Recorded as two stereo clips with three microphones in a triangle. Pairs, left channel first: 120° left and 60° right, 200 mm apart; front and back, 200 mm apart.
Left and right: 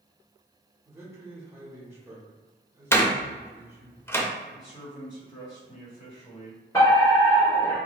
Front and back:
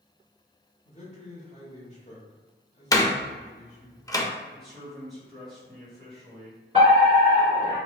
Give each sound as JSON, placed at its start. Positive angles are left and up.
{"t": 0.8, "sound": "a man speaking", "azimuth_deg": 5, "distance_m": 1.2}
{"t": 2.9, "sound": "a door slam", "azimuth_deg": 55, "distance_m": 0.5}
{"t": 4.5, "sound": "a man speaking", "azimuth_deg": 90, "distance_m": 1.7}
{"t": 6.7, "sound": "a fire alarm", "azimuth_deg": 170, "distance_m": 1.9}